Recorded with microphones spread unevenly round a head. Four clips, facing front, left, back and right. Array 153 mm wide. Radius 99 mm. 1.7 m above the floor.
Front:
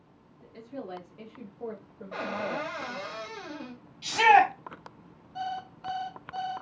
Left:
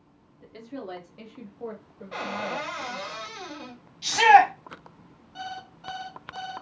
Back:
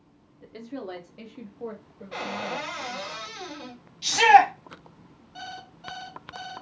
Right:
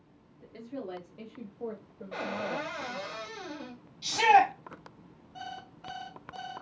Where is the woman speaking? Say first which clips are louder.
Left 2 dB, back 4 dB; 125° left, 0.9 m; by 3.1 s 25° left, 1.1 m.